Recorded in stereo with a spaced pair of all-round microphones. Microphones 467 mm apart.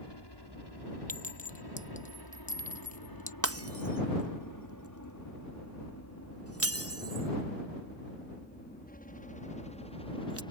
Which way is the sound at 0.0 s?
60° left (ahead or behind).